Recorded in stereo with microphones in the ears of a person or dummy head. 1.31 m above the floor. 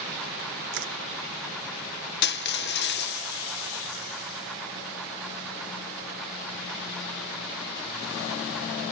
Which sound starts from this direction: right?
Crushing, at 0.7 s.